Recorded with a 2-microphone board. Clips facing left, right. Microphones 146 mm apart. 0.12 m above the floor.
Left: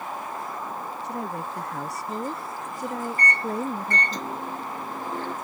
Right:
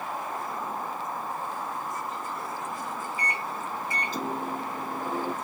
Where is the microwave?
10° right (ahead or behind).